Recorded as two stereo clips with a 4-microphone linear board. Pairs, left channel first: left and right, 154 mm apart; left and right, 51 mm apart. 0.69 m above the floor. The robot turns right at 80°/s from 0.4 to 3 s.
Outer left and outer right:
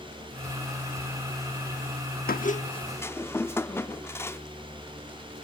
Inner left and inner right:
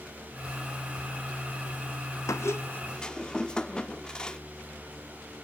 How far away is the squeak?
About 0.6 m.